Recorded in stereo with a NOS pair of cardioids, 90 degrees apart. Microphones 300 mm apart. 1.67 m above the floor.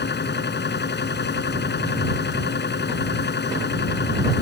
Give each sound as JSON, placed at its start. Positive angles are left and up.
{"t": 0.0, "sound": "a machine running", "azimuth_deg": 35}